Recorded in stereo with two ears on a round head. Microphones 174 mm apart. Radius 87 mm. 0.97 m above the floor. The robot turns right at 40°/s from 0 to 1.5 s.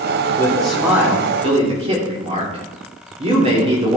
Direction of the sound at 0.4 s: 170° left.